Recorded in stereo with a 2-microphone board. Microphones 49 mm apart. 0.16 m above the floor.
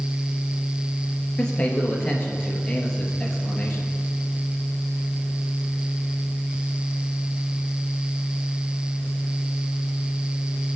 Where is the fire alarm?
I don't hear a fire alarm.